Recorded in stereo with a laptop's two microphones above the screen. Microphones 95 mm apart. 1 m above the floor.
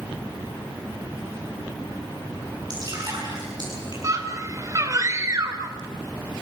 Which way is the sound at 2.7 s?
45° right (ahead or behind).